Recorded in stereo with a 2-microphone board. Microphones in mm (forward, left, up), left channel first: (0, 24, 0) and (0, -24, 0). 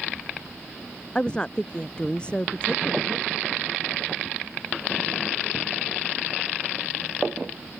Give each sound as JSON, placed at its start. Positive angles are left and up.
{"t": 1.1, "sound": "a woman speaking", "side_deg": 20}